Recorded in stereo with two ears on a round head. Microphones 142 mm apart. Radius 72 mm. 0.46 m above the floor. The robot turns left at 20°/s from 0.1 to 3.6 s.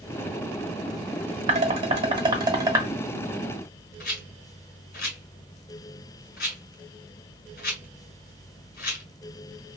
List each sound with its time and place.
1.5 s dishes clattering: 45° right (ahead or behind), 1.0 m; by 2.9 s 20° right (ahead or behind), 1.0 m
4.0 s a rattle: 60° left (ahead or behind), 1.8 m